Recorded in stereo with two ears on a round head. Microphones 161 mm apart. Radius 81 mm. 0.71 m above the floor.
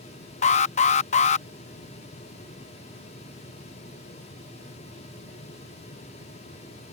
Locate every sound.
0.4 s an alarm: 40° left (ahead or behind)